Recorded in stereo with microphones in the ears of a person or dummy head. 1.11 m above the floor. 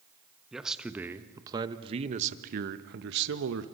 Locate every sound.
0.5 s a man speaking: 5° right (ahead or behind), 1.4 m; by 3.6 s 75° right (ahead or behind), 1.3 m